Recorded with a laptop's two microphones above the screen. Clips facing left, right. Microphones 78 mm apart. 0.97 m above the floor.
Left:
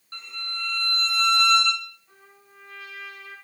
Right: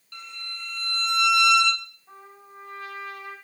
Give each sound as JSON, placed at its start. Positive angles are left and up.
{"t": 0.1, "sound": "a violin", "side_deg": 40, "distance_m": 0.8}
{"t": 2.1, "sound": "a trumpet", "side_deg": -60, "distance_m": 1.9}